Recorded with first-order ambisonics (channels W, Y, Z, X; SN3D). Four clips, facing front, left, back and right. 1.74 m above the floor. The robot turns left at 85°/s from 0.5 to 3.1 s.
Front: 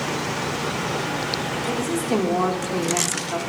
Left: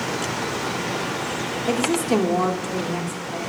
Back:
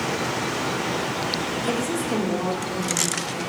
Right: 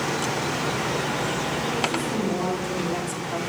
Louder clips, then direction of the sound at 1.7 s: Left 4 dB, front 2 dB; 110° left.